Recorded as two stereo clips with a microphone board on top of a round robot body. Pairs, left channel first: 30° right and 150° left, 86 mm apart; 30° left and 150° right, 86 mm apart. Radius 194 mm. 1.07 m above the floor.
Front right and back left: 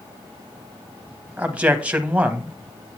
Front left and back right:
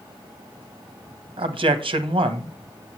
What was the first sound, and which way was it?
A man speaking, 135° right.